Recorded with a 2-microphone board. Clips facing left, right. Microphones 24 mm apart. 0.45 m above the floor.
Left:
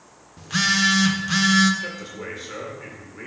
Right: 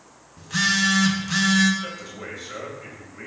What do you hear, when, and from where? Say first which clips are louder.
0.4 s a phone buzzing: left 1 dB; 20° left (ahead or behind), 0.6 m
1.8 s a man speaking: left 2 dB; 25° left (ahead or behind), 1.6 m